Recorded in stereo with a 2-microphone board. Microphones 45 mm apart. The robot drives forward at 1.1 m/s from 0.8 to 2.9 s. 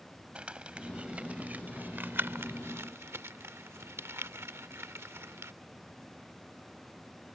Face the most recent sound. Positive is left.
turn(degrees=-75)  # may be behind; listen again after turning